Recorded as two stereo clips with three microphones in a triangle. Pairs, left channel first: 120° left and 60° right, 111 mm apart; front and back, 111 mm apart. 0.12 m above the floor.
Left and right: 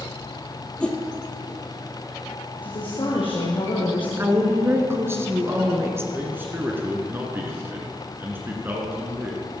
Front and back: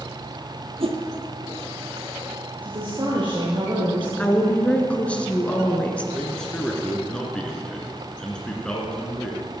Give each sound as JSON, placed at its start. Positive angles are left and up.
{"t": 0.8, "sound": "a whoosh", "azimuth_deg": -160, "distance_m": 1.4}
{"t": 2.6, "sound": "a woman speaking", "azimuth_deg": 150, "distance_m": 2.5}
{"t": 4.2, "sound": "a woman speaking", "azimuth_deg": -60, "distance_m": 1.4}
{"t": 6.1, "sound": "a man speaking", "azimuth_deg": -65, "distance_m": 1.6}